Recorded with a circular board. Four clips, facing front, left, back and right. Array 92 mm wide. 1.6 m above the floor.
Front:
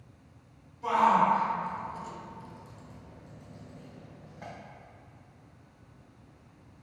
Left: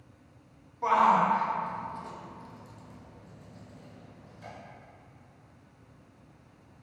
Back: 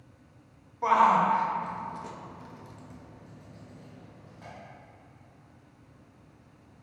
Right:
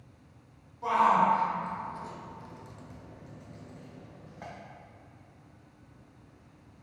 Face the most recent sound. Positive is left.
turn(degrees=-75)